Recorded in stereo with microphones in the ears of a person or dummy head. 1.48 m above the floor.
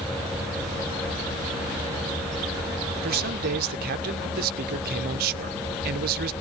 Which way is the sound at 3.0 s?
55° right (ahead or behind).